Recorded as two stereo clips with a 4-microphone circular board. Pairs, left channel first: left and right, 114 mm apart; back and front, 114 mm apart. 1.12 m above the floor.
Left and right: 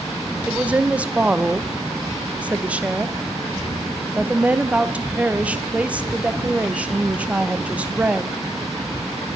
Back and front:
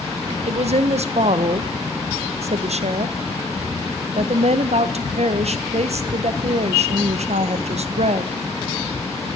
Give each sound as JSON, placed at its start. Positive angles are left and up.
{"t": 0.5, "sound": "a woman speaking", "azimuth_deg": -10, "distance_m": 0.5}